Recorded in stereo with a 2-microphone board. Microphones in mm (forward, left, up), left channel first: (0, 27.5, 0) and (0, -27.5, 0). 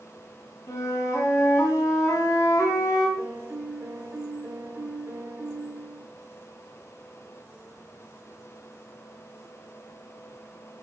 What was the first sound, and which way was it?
A flute, 85° left.